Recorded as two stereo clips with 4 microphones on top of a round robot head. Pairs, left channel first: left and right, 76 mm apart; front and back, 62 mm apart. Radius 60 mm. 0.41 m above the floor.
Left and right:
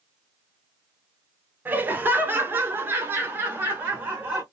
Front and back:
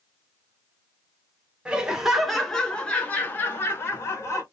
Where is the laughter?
125° right, 1.3 m; by 4.4 s 30° right, 1.8 m.